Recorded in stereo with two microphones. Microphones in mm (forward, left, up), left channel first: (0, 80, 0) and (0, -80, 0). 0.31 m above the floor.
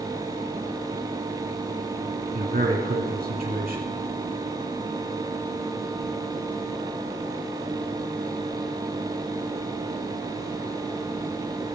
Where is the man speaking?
70° right (ahead or behind), 3 m.